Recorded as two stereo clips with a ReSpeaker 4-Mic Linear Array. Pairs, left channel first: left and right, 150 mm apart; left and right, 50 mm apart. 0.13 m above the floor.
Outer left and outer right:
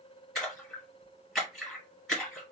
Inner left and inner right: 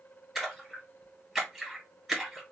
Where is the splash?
Centre (ahead or behind), 2 m.